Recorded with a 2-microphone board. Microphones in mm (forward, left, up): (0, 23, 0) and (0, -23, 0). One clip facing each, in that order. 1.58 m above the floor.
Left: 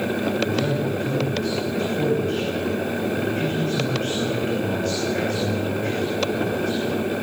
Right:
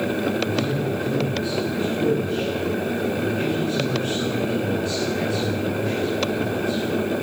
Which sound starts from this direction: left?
A man speaking, at 0.4 s.